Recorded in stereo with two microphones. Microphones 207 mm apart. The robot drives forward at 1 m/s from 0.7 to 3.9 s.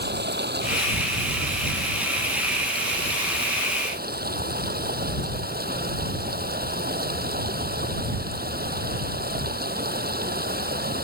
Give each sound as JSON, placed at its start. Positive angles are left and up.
{"t": 0.0, "sound": "running water", "side_deg": -55}